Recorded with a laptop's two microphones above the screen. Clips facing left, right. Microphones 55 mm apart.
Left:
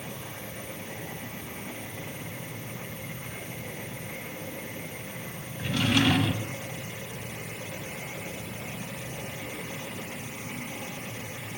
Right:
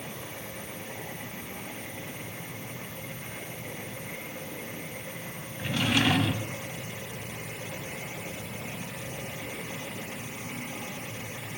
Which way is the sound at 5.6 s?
5° right (ahead or behind).